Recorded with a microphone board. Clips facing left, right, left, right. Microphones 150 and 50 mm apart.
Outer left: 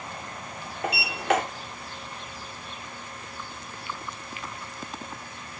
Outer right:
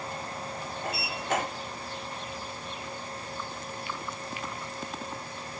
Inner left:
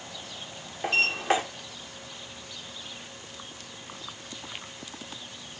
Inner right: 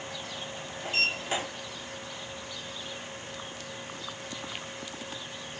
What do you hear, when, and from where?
0.8 s a sliding door: 85° left, 2 m